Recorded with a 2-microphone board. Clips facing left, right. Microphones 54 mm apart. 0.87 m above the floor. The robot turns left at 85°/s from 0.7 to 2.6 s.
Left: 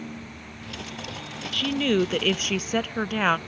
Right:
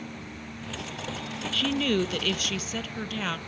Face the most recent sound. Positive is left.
turn(degrees=100)